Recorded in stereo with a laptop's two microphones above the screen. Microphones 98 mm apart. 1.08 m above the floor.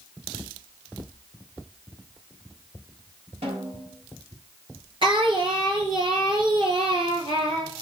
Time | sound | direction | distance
3.4 | a snare drum | 85° right | 4.5 m
5.0 | singing | 65° right (ahead or behind) | 3 m